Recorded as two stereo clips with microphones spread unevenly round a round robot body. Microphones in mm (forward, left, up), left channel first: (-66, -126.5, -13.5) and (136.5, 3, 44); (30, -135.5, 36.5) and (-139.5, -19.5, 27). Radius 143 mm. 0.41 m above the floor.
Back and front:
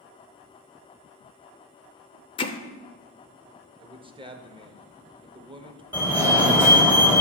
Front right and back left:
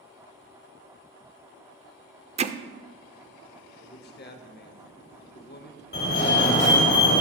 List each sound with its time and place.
2.4 s hammering: straight behind, 0.6 m
3.8 s a man speaking: 45° right, 1.1 m
5.9 s a fire alarm: 60° right, 3.5 m